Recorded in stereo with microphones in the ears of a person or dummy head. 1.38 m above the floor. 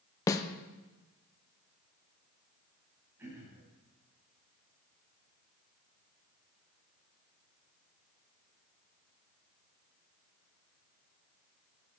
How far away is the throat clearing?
About 4.5 m.